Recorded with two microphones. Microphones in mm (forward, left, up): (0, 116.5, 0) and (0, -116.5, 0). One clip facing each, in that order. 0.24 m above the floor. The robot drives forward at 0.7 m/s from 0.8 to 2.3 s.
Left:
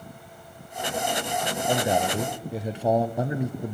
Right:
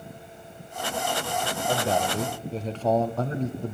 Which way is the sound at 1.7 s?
15° left (ahead or behind).